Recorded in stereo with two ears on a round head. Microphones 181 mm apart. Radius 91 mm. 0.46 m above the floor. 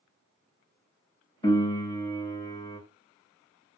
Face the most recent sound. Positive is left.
turn(degrees=20)  # may be behind; listen again after turning